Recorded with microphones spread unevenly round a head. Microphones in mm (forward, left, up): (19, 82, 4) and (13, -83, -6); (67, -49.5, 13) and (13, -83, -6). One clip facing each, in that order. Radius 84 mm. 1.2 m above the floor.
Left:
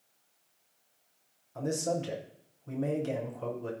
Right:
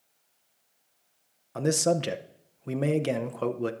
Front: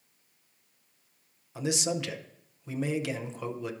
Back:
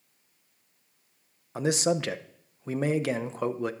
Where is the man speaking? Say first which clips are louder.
Right 6 dB, back 5 dB; 110° right, 0.6 m.